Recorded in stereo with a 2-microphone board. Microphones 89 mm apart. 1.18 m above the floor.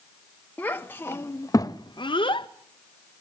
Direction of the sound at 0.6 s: 20° left (ahead or behind).